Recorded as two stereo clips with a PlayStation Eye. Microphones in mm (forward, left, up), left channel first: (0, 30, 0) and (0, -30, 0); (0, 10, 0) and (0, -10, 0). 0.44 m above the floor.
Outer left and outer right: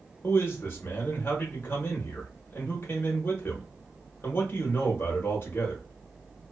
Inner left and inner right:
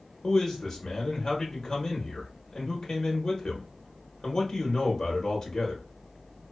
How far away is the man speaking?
About 0.9 m.